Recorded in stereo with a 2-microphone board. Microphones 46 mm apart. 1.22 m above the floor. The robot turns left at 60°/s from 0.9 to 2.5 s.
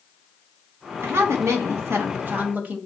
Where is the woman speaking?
55° right, 0.9 m; by 2.8 s 145° right, 0.9 m.